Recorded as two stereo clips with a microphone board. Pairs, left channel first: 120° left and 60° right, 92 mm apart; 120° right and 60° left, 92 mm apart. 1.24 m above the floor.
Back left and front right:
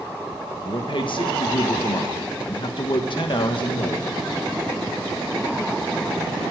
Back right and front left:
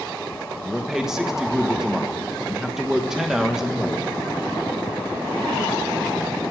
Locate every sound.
0.7 s a man speaking: 145° left, 1.3 m